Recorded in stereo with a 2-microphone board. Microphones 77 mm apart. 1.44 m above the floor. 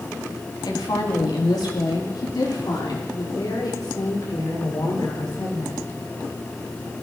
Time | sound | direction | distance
0.6 | a woman speaking | 80° left | 3 m